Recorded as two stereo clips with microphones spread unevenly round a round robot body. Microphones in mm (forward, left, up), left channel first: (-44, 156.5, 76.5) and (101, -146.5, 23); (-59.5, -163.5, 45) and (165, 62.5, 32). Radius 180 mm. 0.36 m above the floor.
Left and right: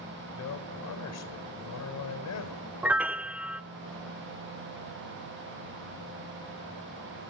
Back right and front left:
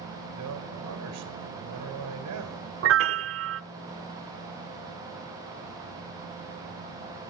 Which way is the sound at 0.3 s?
80° left.